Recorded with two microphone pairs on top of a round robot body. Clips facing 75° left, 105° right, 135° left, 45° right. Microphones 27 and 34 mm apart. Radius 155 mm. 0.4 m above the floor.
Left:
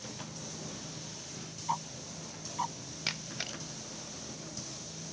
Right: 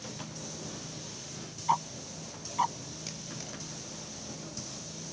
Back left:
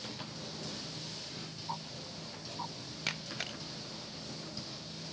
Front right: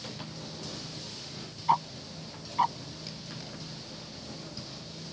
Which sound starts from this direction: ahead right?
Ticking, at 1.7 s.